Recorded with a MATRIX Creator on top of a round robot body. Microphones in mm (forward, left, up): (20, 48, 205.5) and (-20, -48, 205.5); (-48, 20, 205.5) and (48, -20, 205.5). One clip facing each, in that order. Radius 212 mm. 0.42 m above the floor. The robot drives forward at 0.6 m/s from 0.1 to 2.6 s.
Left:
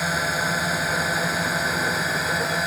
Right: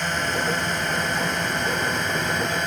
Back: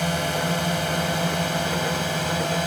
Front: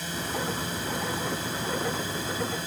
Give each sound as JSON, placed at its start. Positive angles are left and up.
{"t": 0.0, "sound": "a drone", "azimuth_deg": 150}